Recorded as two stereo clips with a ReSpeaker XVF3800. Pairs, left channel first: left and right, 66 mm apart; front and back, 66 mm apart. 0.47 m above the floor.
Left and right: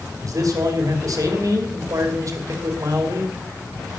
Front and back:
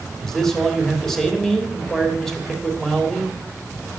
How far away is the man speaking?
About 2.5 m.